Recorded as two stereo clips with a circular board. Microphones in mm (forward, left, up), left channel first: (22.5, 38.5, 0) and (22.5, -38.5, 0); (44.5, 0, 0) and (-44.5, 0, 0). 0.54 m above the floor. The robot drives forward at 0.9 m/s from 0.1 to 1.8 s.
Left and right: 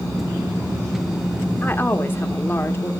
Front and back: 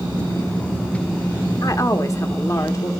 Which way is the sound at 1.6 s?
35° left.